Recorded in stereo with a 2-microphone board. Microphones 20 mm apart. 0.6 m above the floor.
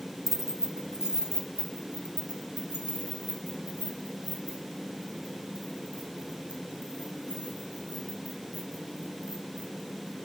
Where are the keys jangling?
20° right (ahead or behind), 0.8 m; by 10.2 s 55° right (ahead or behind), 8 m.